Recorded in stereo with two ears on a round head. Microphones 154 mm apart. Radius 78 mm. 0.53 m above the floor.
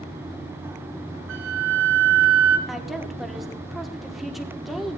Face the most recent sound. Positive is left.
turn(degrees=0)  # may be behind; listen again after turning